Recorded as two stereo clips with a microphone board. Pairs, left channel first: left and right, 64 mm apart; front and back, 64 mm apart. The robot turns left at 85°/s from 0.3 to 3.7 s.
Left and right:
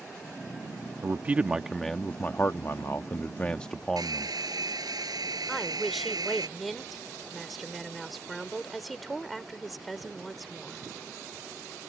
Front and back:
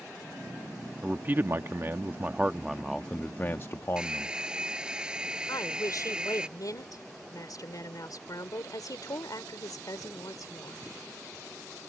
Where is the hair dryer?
100° right.